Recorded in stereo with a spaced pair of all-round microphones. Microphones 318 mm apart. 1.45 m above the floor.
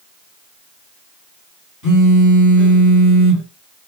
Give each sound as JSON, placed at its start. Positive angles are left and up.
{"t": 1.8, "sound": "a phone buzzing", "side_deg": 65, "distance_m": 2.5}